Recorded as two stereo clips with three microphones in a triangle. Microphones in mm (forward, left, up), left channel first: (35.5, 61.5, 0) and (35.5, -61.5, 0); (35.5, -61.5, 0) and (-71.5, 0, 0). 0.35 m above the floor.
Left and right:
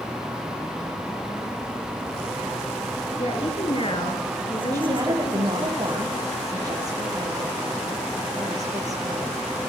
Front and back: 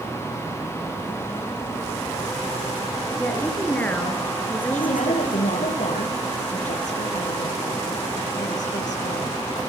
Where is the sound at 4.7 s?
30° right, 7.5 m.